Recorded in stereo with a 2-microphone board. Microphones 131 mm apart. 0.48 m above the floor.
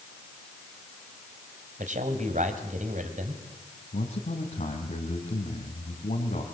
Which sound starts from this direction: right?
A man speaking, at 1.8 s.